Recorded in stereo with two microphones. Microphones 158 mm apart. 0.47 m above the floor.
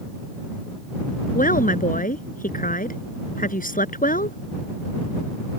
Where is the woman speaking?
60° left (ahead or behind).